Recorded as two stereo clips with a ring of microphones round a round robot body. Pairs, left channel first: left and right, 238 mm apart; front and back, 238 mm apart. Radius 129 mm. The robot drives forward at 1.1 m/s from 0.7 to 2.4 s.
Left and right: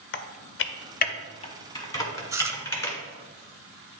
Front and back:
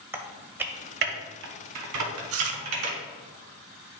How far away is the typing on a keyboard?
About 0.5 m.